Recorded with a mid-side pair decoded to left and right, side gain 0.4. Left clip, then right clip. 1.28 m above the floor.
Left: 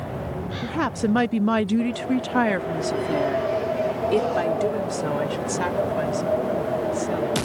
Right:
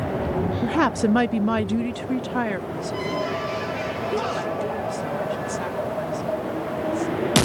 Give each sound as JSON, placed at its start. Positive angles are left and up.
{"t": 0.6, "sound": "a woman speaking", "azimuth_deg": -50}